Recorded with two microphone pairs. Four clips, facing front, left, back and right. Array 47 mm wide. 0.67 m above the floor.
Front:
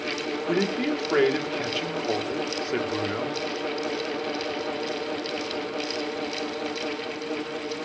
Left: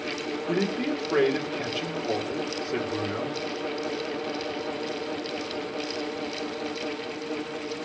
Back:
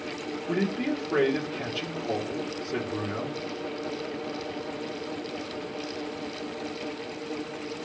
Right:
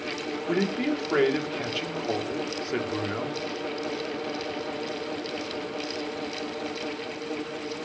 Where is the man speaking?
30° right, 1.9 m.